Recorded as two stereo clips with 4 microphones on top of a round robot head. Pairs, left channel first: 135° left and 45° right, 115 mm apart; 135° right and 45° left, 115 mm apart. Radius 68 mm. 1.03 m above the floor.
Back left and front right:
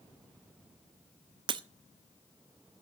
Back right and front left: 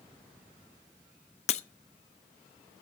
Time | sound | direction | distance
1.5 | breaking glass | 100° right | 0.8 m